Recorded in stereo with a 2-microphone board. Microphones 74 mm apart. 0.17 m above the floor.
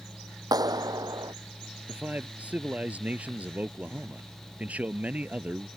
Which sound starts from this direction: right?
A clap, at 0.5 s.